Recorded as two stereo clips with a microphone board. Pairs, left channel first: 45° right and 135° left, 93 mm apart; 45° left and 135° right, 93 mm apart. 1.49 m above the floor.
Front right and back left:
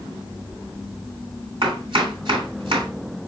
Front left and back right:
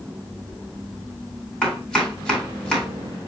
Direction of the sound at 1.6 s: 125° left.